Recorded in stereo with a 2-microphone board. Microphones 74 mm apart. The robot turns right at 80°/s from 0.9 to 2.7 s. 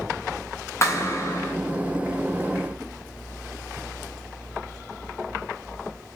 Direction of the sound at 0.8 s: 80° left.